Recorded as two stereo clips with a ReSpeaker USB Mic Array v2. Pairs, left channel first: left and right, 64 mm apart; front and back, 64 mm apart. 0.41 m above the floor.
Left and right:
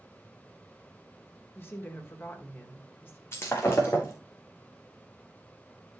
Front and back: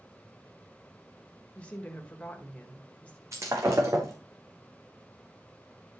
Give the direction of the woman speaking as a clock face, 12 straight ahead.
10 o'clock.